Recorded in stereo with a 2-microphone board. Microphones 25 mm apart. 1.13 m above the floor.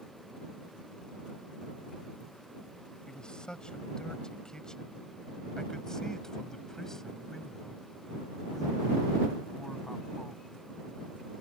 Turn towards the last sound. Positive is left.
turn(degrees=10)  # may be behind; listen again after turning